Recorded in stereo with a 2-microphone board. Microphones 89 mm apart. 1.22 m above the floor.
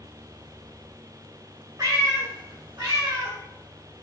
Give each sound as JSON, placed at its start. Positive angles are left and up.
{"t": 1.8, "sound": "a cat meowing", "side_deg": -40, "distance_m": 1.7}